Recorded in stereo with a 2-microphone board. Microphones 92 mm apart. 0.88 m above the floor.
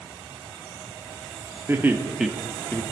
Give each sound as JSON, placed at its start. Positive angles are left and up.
{"t": 1.7, "sound": "laughter", "side_deg": -25, "distance_m": 1.5}